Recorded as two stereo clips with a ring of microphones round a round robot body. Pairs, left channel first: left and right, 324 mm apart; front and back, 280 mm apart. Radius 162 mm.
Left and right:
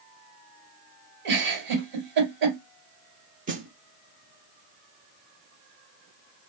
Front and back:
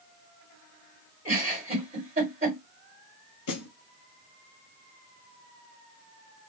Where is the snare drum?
25° right, 0.6 m.